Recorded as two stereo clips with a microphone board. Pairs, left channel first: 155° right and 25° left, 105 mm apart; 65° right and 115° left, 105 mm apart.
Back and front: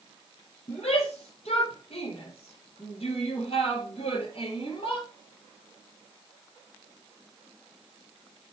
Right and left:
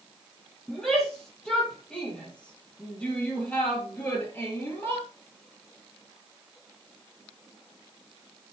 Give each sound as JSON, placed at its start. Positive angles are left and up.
{"t": 0.7, "sound": "a shout", "azimuth_deg": -155, "distance_m": 7.0}